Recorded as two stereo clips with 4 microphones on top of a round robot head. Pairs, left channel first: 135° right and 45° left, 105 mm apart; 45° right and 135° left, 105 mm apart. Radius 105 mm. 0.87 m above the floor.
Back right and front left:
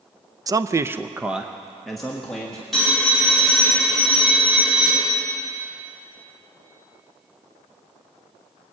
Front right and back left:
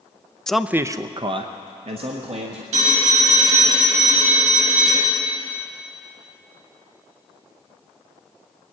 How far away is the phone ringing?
About 5.5 m.